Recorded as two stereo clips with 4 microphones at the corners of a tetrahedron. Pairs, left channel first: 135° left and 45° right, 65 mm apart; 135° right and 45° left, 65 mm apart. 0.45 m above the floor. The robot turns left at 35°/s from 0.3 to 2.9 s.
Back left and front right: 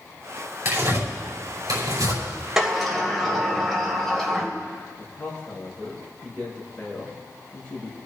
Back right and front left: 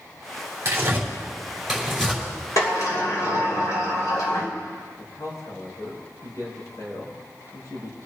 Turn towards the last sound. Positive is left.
turn(degrees=-150)